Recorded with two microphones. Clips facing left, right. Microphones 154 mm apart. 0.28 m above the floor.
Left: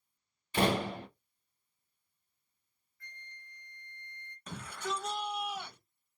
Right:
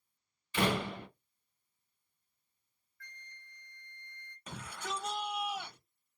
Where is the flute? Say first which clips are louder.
Left 2 dB; 20° left (ahead or behind), 0.7 m.